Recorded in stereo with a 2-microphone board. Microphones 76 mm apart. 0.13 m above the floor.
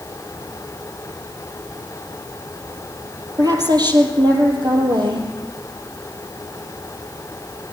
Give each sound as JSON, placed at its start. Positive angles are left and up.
{"t": 3.4, "sound": "a woman speaking", "side_deg": -50, "distance_m": 4.0}